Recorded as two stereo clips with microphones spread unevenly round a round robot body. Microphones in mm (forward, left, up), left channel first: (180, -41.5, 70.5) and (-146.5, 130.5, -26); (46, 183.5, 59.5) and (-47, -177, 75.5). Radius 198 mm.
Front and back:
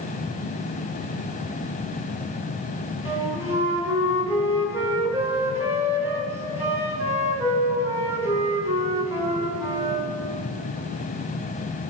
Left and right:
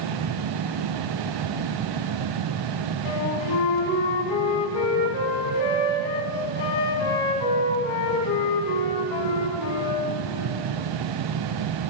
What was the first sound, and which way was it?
A flute, 70° left.